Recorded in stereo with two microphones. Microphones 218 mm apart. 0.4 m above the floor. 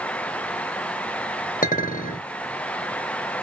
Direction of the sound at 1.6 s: 40° left (ahead or behind).